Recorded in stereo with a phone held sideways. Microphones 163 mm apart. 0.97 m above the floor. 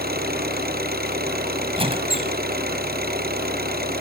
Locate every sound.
0.0 s an engine running: 90° right
1.8 s a squeak: 35° right (ahead or behind)